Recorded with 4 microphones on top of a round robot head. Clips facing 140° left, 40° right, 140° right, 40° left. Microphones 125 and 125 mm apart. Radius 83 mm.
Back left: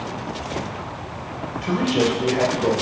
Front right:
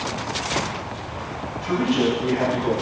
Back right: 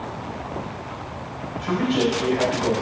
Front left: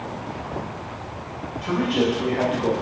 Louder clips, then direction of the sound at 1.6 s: Even, even; 130° left.